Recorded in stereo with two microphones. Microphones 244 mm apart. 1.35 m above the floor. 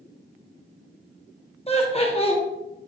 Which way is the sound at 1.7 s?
25° left (ahead or behind).